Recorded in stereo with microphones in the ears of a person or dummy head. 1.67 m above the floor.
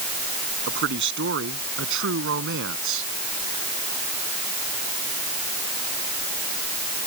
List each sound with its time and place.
0.7 s a man speaking: 60° right (ahead or behind); by 3.1 s 70° right (ahead or behind)